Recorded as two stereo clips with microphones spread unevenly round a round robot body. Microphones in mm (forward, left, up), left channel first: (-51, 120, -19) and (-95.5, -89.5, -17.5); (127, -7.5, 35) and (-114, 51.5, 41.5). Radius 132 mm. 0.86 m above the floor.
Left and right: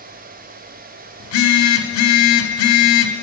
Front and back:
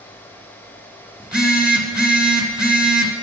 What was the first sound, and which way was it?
A phone buzzing, 80° left.